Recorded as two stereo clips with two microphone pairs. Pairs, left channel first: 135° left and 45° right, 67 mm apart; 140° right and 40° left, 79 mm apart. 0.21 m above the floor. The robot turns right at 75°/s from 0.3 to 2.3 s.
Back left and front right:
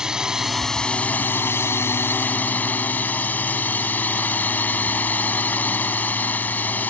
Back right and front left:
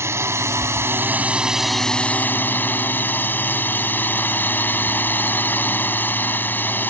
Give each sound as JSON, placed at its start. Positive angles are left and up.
{"t": 0.0, "sound": "a drone", "azimuth_deg": 25}